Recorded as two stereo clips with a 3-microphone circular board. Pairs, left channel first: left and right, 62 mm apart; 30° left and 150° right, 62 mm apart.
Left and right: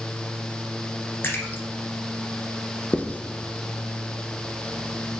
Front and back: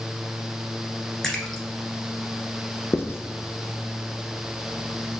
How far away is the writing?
About 0.5 m.